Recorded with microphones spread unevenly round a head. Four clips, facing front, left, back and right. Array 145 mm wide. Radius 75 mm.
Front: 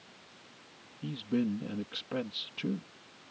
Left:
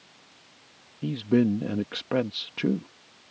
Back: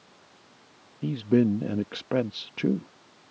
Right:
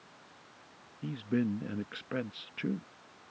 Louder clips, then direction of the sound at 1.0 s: Left 9 dB, back 9 dB; 150° left.